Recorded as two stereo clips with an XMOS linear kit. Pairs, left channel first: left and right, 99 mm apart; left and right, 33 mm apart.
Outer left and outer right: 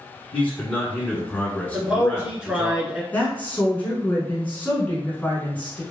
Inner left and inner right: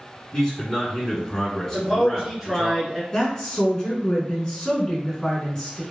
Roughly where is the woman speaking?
Centre.